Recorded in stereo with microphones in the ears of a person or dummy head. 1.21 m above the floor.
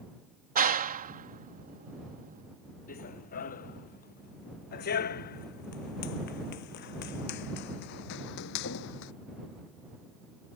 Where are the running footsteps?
45° left (ahead or behind); by 9.1 s 60° left (ahead or behind).